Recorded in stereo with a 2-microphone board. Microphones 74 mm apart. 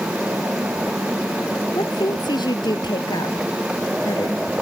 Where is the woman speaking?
80° left.